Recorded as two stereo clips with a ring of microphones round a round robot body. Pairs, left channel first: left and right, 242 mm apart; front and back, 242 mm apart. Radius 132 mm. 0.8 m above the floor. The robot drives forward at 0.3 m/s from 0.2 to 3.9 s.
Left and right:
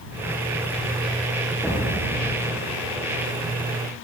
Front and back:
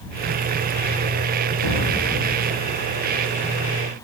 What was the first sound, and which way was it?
An explosion, straight ahead.